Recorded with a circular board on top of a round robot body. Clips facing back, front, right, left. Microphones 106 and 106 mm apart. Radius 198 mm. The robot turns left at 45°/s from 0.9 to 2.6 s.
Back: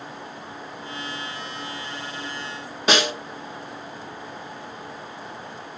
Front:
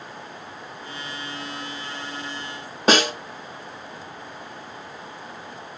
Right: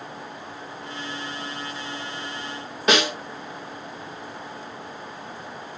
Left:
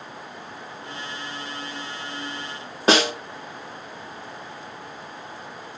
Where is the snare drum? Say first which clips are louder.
Front 3 dB, left 2 dB; 40° left, 2 m.